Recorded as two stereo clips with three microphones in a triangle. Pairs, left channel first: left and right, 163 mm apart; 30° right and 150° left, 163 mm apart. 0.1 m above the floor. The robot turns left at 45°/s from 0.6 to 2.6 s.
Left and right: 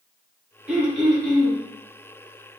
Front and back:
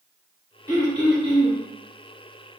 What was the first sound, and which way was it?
Throat clearing, 165° right.